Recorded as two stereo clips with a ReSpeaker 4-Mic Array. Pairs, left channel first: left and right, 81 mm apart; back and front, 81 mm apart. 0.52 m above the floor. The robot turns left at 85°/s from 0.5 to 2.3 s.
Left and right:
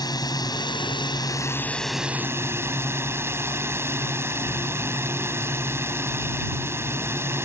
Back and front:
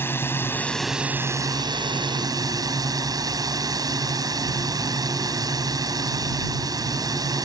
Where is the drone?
120° left; by 7.5 s 35° right.